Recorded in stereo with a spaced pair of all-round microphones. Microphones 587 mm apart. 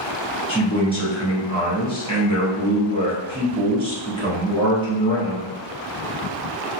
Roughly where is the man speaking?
Centre.